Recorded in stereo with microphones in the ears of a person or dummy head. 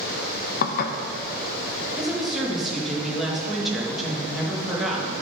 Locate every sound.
0.6 s dishes clattering: 55° left (ahead or behind), 0.7 m
2.0 s a woman speaking: centre (ahead or behind), 2 m